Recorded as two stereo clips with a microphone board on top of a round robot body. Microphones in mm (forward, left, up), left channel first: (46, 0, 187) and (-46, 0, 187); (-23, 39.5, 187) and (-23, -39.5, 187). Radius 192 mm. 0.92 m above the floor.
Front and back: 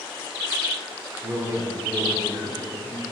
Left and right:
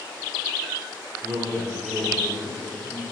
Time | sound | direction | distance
1.2 | a man speaking | 145° right | 4.5 m